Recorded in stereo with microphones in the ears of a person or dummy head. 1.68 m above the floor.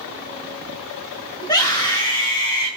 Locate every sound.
1.4 s a scream: 20° left (ahead or behind), 2.5 m